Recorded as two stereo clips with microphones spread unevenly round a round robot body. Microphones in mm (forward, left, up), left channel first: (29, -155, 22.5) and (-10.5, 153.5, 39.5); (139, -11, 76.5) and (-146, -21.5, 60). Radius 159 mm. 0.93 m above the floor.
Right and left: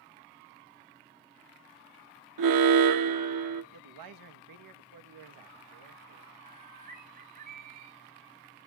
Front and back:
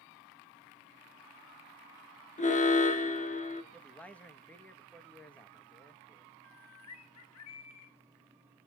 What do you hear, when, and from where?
2.4 s an alarm: 70° left, 1.4 m
3.7 s a man speaking: 90° left, 1.6 m
6.4 s a bird: 35° left, 1.9 m